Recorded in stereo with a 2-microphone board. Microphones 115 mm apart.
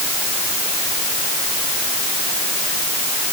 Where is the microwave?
No microwave in this recording.